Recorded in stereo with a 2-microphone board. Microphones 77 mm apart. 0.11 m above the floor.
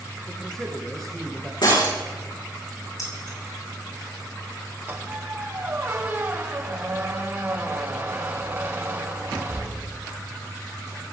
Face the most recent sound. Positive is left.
turn(degrees=-25)  # may be behind; listen again after turning